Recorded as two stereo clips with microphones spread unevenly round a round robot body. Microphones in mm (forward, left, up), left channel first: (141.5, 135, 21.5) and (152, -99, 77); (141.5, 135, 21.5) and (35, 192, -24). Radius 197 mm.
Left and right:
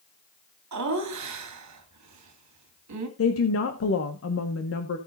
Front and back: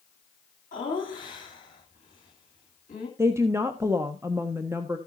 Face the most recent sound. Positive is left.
turn(degrees=90)